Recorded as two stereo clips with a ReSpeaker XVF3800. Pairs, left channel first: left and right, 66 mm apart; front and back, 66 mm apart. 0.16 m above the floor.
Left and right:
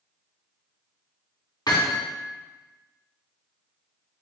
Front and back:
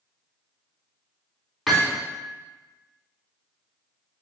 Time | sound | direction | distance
1.7 | hammering | 90° left | 4.5 m